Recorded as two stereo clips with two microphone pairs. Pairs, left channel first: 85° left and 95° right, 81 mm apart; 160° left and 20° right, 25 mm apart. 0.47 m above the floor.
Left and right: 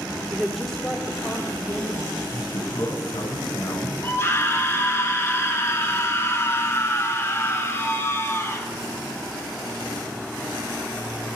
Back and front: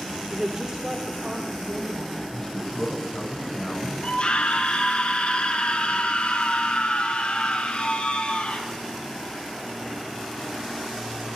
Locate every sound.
0.3 s a woman speaking: 50° right, 0.8 m; by 2.2 s 40° left, 2.5 m
2.3 s a man speaking: 115° left, 5.5 m
4.0 s a scream: 140° left, 2.0 m